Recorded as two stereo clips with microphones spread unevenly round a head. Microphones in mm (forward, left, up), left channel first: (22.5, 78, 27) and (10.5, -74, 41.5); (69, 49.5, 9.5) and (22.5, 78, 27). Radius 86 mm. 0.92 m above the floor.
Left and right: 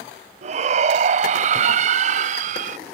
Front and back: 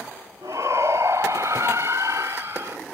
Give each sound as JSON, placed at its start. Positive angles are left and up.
{"t": 0.4, "sound": "a shout", "azimuth_deg": -145}